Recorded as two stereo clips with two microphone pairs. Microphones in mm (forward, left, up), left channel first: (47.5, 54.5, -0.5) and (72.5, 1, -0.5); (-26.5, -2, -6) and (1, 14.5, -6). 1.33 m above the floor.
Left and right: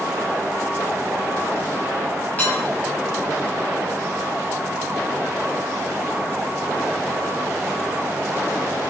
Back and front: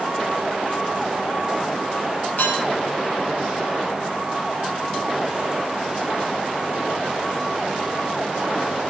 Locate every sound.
2.4 s dishes clattering: straight behind, 6.5 m